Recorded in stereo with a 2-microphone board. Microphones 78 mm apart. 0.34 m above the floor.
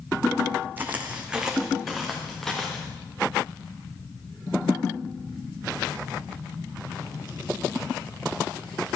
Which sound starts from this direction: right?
Footsteps, at 0.8 s.